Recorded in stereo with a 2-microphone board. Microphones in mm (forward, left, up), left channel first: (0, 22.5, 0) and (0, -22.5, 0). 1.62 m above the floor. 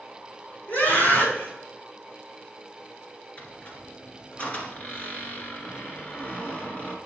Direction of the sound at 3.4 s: 35° left (ahead or behind).